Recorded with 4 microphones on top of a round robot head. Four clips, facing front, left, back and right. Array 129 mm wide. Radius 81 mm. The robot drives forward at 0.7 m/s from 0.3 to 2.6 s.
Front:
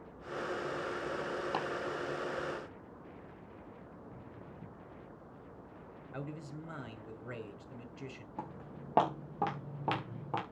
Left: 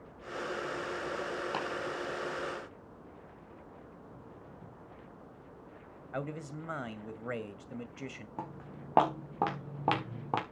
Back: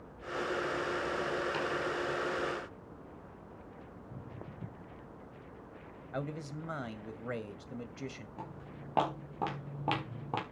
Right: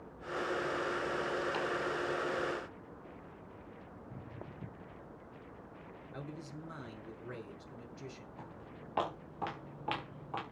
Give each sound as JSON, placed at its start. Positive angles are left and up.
{"t": 1.5, "sound": "chopping", "azimuth_deg": 35, "distance_m": 4.5}
{"t": 4.0, "sound": "footsteps", "azimuth_deg": -115, "distance_m": 1.3}
{"t": 6.1, "sound": "a man speaking", "azimuth_deg": 120, "distance_m": 2.0}
{"t": 8.4, "sound": "footsteps", "azimuth_deg": 60, "distance_m": 5.5}